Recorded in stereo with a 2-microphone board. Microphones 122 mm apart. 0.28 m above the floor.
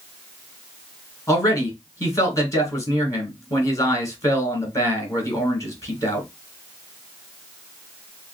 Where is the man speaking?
25° left (ahead or behind), 2.5 m.